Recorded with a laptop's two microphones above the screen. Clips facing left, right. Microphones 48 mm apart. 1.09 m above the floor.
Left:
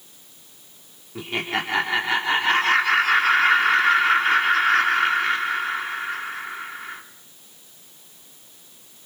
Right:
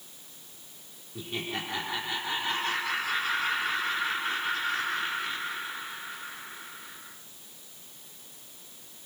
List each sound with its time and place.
1.1 s laughter: 75° left (ahead or behind), 3 m